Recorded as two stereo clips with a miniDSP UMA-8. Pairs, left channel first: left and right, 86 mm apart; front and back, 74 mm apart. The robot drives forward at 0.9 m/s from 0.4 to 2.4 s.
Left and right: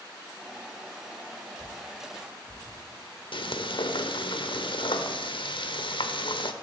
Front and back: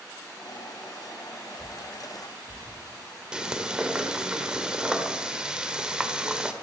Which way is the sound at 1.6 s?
30° right.